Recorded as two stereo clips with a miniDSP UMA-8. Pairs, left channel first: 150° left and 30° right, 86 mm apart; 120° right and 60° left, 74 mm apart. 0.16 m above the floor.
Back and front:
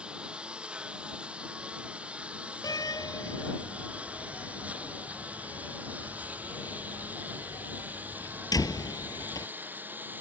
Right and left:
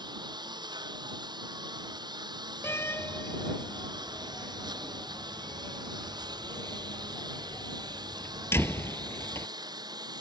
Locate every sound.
0.0 s a lawn mower: 45° left; by 10.2 s 35° left
2.6 s a door slam: 175° right